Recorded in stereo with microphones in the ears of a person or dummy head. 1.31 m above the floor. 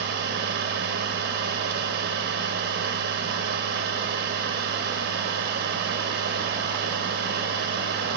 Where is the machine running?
50° right (ahead or behind), 2.5 m.